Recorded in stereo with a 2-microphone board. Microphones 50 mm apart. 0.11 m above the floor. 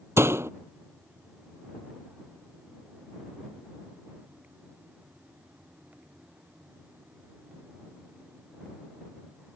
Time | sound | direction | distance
0.2 | a door slam | 55° right (ahead or behind) | ?